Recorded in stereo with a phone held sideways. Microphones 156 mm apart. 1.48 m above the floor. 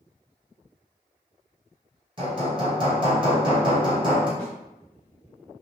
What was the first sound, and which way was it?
Hammering, 30° right (ahead or behind).